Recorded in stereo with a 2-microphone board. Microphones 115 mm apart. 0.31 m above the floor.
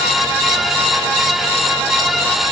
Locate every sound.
Only background noise.